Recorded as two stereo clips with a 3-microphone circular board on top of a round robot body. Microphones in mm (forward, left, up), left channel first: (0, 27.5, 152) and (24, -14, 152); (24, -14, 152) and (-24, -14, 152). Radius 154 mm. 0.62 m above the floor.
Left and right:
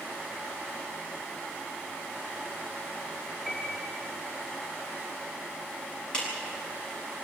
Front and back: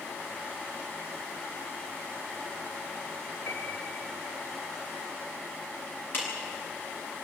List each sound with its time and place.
3.5 s a piano: 30° left, 3.5 m
6.1 s a clap: 50° left, 7.5 m